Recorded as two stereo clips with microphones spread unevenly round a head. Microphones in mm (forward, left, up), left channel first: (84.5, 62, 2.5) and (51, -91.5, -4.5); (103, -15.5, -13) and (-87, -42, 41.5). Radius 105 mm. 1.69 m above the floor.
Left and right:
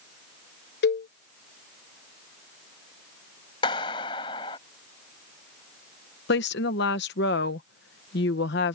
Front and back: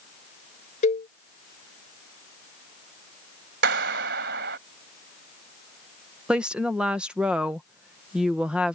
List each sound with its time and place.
0.8 s a cowbell: 70° left
3.6 s a clap: 145° left
6.3 s a woman speaking: 105° left